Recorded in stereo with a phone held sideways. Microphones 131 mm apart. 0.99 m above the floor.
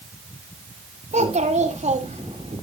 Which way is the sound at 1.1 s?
70° right (ahead or behind).